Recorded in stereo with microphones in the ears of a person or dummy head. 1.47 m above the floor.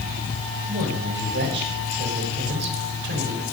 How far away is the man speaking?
About 5 m.